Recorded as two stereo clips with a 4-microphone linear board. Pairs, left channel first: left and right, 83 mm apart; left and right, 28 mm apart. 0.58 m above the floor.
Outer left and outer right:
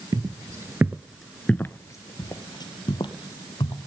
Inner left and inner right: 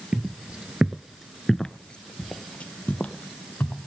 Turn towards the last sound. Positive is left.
turn(degrees=70)  # may be behind; listen again after turning